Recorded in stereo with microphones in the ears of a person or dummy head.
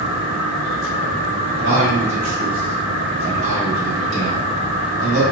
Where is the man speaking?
70° right (ahead or behind), 1.6 m.